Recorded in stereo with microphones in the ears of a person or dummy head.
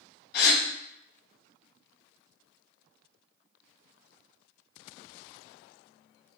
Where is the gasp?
55° left (ahead or behind), 0.9 m.